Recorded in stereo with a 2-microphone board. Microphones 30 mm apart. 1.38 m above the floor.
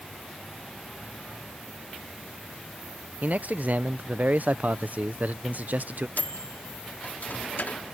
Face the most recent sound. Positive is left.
turn(degrees=80)